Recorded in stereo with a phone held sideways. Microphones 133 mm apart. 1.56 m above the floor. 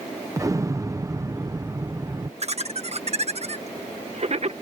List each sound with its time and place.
0.4 s an explosion: 25° right (ahead or behind)
2.4 s laughter: 50° right (ahead or behind)